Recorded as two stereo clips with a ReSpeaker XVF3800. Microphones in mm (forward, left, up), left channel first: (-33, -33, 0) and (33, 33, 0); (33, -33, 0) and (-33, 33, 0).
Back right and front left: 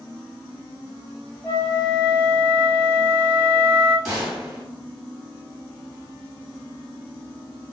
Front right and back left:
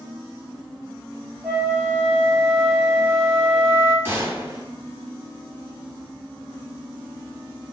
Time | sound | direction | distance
1.4 | a flute | 175° left | 1.5 m
4.0 | a gunshot | 120° left | 1.6 m